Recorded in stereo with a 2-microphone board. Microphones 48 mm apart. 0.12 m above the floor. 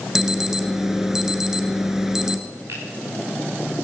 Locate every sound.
0.1 s an alarm: 10° right (ahead or behind), 1.4 m
2.7 s a finger snap: 80° right, 8.5 m